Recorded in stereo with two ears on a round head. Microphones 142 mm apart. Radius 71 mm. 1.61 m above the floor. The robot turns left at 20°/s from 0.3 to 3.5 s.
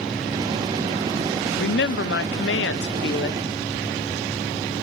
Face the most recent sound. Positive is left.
turn(degrees=65)